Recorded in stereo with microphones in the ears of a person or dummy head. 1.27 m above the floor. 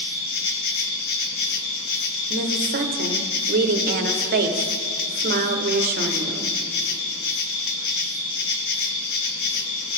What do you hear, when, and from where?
0.0 s an insect: 65° left (ahead or behind), 0.8 m
2.3 s a woman speaking: 45° right (ahead or behind), 0.7 m